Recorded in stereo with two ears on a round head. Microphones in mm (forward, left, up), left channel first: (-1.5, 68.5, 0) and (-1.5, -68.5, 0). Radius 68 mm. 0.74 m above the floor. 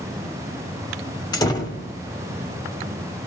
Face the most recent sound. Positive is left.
turn(degrees=25)  # may be behind; listen again after turning